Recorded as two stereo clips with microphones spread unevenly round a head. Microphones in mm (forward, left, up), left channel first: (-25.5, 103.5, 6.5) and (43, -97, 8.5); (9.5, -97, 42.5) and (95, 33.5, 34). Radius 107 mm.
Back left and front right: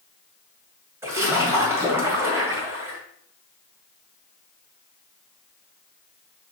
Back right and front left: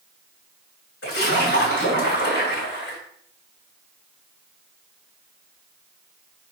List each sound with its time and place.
1.0 s a splash: 150° right, 2.5 m